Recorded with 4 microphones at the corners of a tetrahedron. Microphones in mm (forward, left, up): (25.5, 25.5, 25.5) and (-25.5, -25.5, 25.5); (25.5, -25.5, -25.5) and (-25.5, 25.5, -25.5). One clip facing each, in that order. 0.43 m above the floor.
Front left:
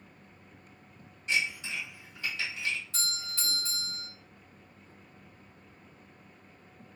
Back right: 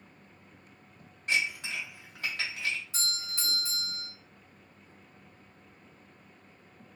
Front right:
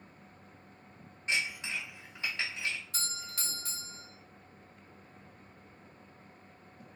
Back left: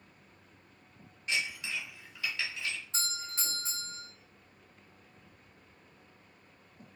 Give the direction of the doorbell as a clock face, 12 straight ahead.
6 o'clock.